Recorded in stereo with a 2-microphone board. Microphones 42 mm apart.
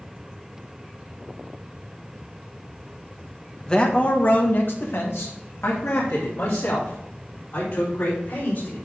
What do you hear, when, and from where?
3.7 s a man speaking: 20° left (ahead or behind), 1.5 m; by 8.8 s 75° left (ahead or behind), 5.5 m